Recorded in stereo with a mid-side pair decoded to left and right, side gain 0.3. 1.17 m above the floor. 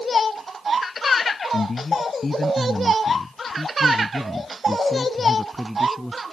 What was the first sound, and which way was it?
A man speaking, 45° left.